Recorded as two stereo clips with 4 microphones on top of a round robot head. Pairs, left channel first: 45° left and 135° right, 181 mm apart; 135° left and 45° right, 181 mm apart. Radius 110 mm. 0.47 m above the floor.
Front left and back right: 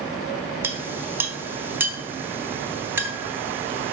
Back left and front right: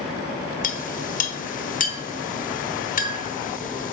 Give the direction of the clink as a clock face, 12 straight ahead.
7 o'clock.